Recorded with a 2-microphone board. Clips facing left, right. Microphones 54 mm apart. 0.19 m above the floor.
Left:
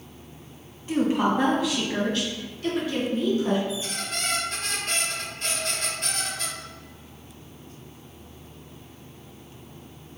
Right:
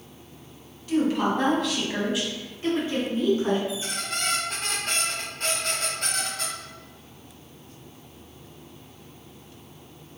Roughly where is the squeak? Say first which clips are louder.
Even; right.